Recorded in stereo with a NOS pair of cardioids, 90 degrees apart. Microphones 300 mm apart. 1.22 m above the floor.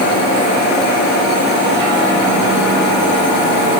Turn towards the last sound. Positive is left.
No sound to turn to.